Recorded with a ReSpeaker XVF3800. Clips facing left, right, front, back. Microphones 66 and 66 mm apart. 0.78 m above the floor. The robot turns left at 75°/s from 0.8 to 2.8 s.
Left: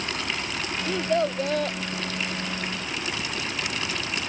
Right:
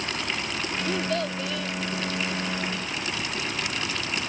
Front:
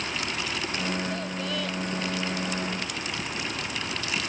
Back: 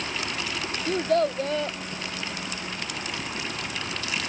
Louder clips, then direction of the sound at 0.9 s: Left 5 dB, back 8 dB; straight behind.